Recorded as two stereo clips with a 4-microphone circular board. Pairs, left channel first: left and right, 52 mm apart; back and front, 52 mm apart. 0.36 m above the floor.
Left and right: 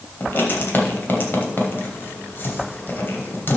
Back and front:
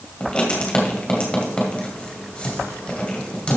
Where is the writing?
120° left, 2 m.